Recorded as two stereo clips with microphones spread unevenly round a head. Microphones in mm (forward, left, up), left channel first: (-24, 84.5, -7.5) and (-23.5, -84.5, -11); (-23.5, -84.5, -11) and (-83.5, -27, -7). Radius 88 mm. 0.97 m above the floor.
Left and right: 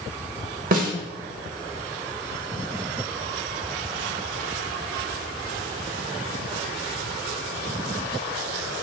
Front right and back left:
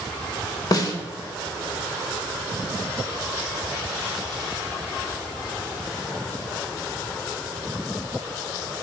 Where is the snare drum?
65° right, 0.9 m.